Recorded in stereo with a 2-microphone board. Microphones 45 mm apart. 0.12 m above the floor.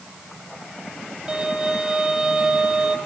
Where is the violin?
20° right (ahead or behind), 4.5 m.